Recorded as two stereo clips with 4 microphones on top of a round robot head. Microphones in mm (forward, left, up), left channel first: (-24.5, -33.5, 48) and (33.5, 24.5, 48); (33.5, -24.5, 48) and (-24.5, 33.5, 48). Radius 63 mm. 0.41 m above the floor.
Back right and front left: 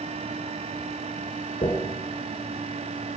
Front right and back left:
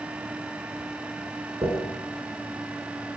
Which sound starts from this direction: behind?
A dropped coin, at 1.6 s.